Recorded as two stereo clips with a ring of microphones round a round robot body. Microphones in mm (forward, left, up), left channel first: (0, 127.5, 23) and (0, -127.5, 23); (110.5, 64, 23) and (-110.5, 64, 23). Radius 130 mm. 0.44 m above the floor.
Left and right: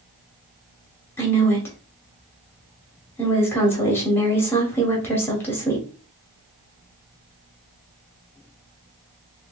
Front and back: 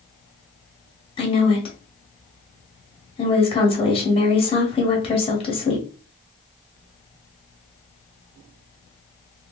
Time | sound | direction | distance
1.2 | a woman speaking | 20° left | 1.0 m